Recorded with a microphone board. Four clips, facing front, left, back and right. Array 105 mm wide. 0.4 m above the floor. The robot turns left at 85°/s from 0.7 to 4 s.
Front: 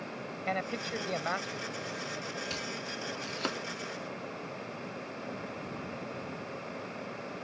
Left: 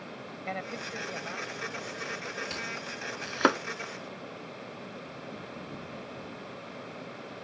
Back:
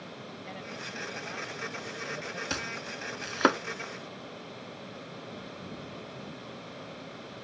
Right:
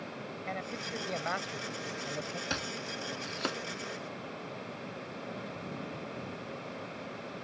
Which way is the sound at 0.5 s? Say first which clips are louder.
Left 3 dB, front 10 dB; 15° left.